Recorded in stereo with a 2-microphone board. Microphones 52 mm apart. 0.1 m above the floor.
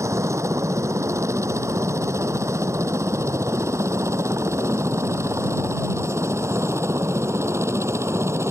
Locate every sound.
0.0 s a helicopter: 65° right (ahead or behind); by 8.5 s 60° right (ahead or behind)